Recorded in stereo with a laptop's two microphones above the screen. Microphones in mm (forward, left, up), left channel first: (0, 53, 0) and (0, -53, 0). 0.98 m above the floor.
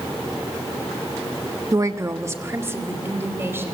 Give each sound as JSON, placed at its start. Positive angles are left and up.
{"t": 1.7, "sound": "a woman speaking", "side_deg": -35, "distance_m": 0.7}